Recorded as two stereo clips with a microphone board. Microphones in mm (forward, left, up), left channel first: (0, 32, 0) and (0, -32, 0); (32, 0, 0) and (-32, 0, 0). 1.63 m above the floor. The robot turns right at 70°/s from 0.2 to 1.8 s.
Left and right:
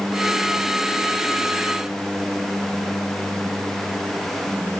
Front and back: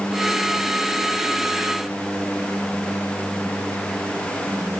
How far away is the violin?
I don't hear a violin.